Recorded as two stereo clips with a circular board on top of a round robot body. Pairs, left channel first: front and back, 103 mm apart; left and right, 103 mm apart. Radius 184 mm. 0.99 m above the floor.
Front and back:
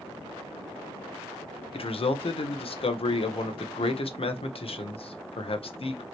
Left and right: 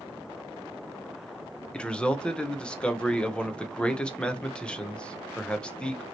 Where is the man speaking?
10° left, 1.0 m.